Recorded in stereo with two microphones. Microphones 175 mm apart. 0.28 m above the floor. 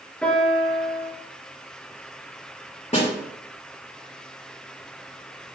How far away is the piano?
About 3.5 m.